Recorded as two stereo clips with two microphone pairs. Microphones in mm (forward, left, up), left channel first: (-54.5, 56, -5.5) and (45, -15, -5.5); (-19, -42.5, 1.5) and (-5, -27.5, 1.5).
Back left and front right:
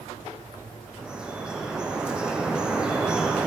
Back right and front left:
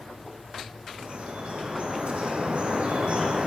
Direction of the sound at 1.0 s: 50° left.